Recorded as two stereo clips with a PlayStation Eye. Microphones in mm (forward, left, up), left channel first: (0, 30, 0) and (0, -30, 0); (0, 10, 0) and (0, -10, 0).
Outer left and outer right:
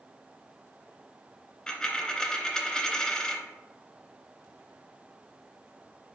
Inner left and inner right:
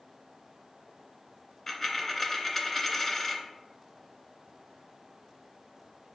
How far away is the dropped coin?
About 0.6 m.